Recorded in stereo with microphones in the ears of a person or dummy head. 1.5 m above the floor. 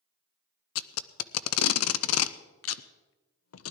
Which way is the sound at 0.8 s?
80° left.